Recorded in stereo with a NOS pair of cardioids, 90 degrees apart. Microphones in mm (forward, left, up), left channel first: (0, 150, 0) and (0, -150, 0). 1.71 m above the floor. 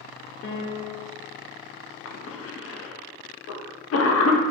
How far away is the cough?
About 1.0 m.